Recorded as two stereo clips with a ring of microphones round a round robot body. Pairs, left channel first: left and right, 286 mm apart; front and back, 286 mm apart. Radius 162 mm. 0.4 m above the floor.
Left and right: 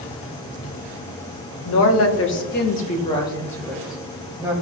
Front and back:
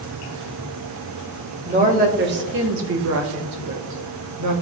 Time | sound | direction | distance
1.6 | a woman speaking | 115° left | 1.8 m